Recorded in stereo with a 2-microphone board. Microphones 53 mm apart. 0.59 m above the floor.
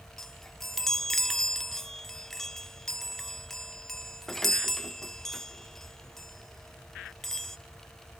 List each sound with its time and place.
0.2 s a chime: 5° left (ahead or behind), 0.7 m